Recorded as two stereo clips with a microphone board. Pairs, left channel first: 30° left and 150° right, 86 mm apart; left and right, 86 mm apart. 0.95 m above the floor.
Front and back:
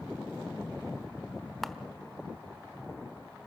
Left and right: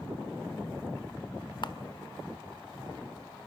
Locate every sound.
1.6 s a camera shutter: 115° left, 1.1 m